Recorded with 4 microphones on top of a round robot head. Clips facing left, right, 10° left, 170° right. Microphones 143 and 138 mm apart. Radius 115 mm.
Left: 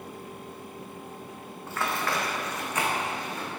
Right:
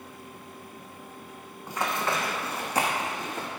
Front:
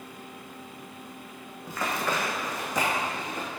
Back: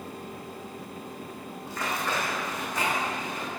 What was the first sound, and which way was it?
Running footsteps, 10° right.